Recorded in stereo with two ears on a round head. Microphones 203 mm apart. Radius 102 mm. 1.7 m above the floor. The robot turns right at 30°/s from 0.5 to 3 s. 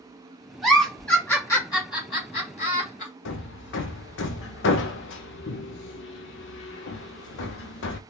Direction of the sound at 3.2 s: 55° left (ahead or behind).